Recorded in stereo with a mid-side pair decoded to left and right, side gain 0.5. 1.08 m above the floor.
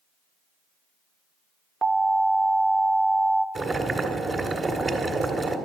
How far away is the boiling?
About 1.9 m.